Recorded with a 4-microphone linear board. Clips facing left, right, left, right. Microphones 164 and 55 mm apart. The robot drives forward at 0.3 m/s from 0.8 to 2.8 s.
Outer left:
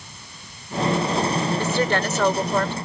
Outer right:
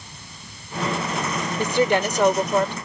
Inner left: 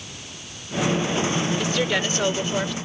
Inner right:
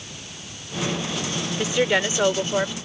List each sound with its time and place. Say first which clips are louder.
1.6 s a woman speaking: outer right 2 dB, inner right 2 dB; 20° right (ahead or behind); by 2.7 s 15° right (ahead or behind)